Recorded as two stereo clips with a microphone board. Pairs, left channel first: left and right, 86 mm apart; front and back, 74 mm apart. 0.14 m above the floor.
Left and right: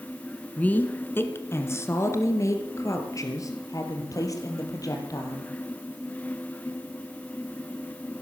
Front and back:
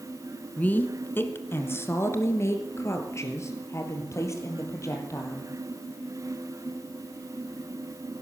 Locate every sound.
0.6 s a woman speaking: 40° left, 1.3 m; by 5.5 s 45° left, 4 m